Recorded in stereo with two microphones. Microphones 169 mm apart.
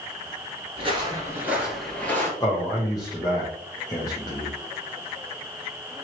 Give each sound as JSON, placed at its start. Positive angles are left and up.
{"t": 0.8, "sound": "footsteps", "side_deg": -35, "distance_m": 1.4}
{"t": 2.4, "sound": "a man speaking", "side_deg": 20, "distance_m": 0.9}